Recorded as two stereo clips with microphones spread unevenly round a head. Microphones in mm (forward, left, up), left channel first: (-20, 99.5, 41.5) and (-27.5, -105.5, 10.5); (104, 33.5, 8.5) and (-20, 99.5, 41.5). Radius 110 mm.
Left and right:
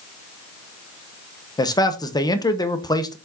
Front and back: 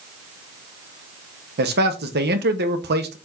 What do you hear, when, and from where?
1.6 s a man speaking: 160° left, 1.3 m